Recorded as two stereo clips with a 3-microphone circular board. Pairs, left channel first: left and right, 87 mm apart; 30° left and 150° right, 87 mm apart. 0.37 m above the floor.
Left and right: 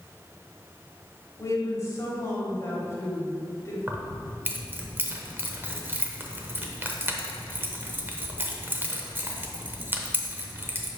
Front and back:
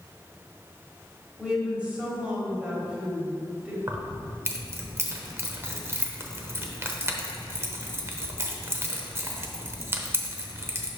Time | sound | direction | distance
1.4 | a woman speaking | 135° left | 1.9 m
3.9 | keys jangling | 130° right | 0.8 m